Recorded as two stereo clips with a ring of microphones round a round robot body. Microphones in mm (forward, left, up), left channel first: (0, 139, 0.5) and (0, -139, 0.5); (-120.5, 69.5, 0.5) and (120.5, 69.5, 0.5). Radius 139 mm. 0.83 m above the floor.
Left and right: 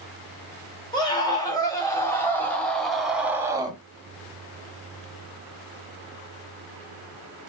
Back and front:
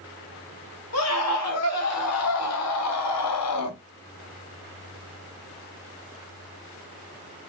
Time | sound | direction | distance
0.9 | a scream | 165° left | 2.5 m